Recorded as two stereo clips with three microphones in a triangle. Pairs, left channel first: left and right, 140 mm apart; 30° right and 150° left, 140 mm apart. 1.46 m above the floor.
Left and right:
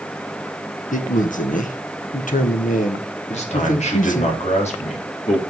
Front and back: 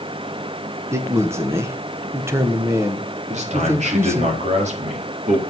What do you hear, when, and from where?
0.9 s a man speaking: 80° left, 1.2 m
3.3 s a man speaking: 120° left, 3 m